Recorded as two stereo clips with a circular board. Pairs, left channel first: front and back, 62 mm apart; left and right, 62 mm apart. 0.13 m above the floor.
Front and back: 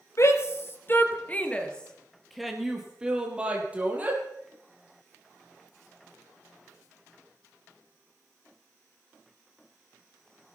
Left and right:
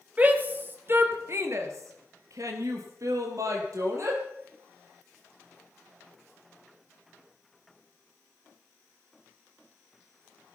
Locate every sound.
0.2 s a shout: 30° right, 3 m; by 4.2 s 115° right, 4.5 m